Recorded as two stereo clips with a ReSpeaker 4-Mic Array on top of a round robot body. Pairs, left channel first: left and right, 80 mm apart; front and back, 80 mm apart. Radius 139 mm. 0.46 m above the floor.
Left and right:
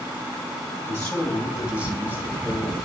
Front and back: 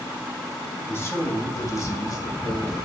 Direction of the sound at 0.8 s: 40° left.